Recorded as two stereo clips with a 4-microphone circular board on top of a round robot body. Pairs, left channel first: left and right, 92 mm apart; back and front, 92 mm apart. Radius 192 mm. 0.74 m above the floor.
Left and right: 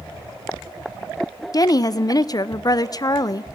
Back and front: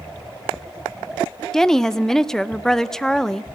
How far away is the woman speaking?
About 0.8 m.